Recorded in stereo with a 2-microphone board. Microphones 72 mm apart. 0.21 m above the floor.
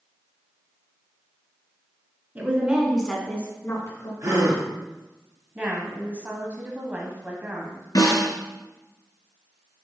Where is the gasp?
50° right (ahead or behind), 2.5 m.